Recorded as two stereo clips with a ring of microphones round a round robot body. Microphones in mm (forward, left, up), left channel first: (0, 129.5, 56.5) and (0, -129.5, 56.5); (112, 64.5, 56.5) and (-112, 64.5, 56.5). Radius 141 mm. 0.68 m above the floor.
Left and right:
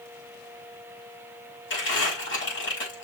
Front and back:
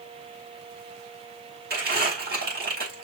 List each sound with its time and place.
1.7 s crumpling: 135° left, 5 m